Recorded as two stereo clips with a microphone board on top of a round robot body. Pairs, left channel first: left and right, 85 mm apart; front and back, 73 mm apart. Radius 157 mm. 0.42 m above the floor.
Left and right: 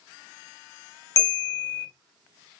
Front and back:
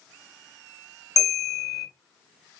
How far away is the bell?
About 1.4 m.